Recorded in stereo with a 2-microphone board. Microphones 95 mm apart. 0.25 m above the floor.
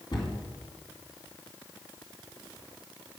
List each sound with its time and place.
0.1 s a cupboard door: 55° left (ahead or behind), 2.5 m